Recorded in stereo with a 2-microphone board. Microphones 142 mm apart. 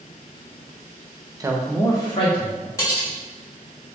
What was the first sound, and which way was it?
A man speaking, 25° right (ahead or behind).